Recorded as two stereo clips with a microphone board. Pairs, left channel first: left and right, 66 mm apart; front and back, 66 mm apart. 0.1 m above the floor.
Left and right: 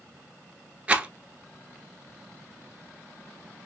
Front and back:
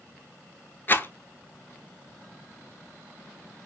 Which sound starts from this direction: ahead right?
A rattle, at 0.9 s.